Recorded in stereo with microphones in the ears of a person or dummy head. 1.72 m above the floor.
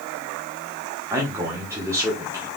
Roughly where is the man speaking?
Centre.